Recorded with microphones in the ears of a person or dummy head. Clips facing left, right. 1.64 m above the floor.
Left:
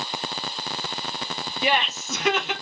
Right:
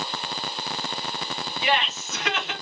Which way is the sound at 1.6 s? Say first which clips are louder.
Left 1 dB; 85° left.